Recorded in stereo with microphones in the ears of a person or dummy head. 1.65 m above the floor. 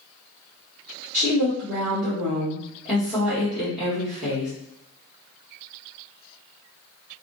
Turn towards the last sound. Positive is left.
turn(degrees=5)  # may be behind; listen again after turning